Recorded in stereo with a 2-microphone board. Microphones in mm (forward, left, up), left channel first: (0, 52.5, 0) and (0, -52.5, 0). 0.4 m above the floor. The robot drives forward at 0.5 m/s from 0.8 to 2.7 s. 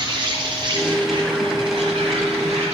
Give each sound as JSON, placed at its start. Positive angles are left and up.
{"t": 0.0, "sound": "an insect", "side_deg": -45, "distance_m": 1.7}